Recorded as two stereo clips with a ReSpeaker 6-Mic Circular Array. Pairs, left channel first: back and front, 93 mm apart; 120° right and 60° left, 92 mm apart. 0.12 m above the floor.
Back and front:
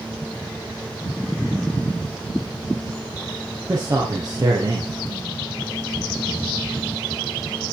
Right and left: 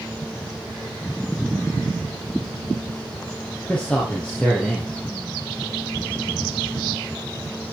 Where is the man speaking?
45° right, 2.5 m.